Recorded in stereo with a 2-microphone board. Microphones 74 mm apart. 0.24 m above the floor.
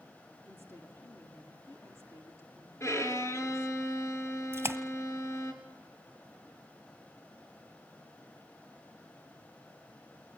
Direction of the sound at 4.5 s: 35° right (ahead or behind).